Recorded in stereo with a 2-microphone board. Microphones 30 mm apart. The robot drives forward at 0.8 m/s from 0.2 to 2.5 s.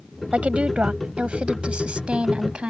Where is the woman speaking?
40° right (ahead or behind); by 2.7 s 35° right (ahead or behind).